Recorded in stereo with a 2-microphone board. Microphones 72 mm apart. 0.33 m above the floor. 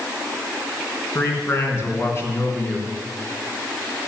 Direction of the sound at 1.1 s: 35° left (ahead or behind).